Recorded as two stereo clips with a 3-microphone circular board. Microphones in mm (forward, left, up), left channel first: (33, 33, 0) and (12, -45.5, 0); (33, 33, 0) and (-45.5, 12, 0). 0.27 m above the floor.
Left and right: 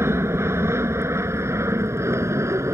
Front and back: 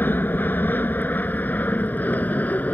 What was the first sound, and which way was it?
An aircraft, 50° right.